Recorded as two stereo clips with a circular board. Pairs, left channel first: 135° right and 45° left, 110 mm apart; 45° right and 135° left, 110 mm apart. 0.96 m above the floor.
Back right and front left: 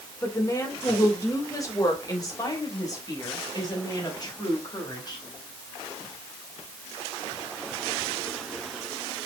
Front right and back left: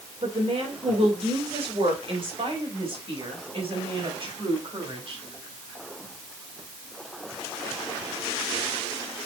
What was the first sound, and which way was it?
A woman speaking, 160° left.